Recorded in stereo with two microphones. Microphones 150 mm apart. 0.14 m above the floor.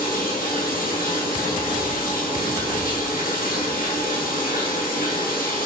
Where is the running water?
75° left (ahead or behind), 1.7 m.